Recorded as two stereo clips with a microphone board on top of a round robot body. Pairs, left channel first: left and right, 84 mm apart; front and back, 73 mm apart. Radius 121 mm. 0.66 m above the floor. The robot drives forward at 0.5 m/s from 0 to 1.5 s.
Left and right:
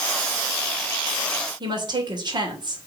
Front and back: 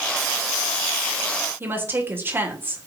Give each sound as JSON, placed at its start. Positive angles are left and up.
{"t": 1.6, "sound": "a woman speaking", "azimuth_deg": -120, "distance_m": 2.5}